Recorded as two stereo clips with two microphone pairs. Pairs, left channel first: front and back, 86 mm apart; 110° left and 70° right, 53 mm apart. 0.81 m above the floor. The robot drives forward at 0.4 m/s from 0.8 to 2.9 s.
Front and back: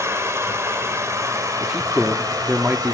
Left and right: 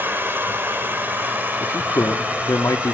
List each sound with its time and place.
0.0 s running water: 120° right, 2 m; by 3.0 s 135° right, 3 m
1.6 s a man speaking: 100° left, 1.3 m; by 3.0 s 120° left, 1.5 m